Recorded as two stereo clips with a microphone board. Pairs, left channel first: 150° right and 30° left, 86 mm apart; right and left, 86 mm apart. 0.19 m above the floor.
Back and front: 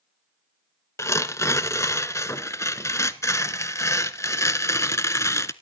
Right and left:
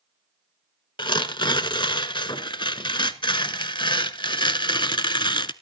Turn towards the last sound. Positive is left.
turn(degrees=-100)